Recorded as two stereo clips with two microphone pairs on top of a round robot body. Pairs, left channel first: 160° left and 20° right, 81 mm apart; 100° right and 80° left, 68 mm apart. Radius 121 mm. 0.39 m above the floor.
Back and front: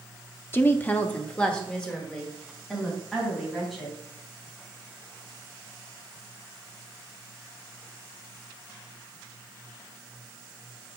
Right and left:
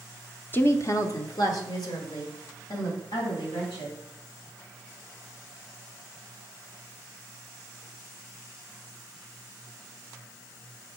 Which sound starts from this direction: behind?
A woman speaking, at 0.5 s.